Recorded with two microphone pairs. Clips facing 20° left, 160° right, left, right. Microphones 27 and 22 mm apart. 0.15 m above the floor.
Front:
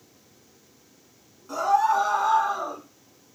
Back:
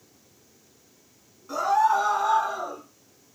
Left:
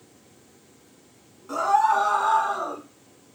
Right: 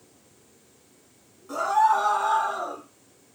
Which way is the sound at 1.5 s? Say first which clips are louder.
Even, left 1 dB; 125° left.